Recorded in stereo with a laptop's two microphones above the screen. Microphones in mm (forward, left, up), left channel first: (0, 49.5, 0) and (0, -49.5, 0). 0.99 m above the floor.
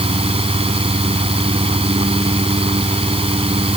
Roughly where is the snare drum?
I don't hear a snare drum.